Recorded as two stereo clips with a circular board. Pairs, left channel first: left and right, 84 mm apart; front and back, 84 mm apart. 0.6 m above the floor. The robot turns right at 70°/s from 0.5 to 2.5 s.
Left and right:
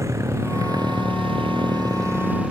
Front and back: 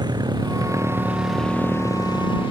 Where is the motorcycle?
145° right; by 2.5 s 10° right.